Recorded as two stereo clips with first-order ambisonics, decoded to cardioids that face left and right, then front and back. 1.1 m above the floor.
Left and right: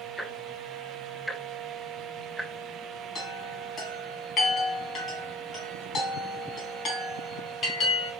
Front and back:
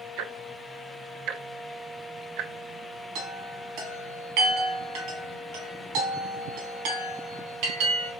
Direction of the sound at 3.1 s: 155° left.